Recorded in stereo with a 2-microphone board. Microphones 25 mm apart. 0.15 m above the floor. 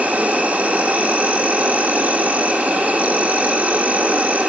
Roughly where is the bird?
I don't hear a bird.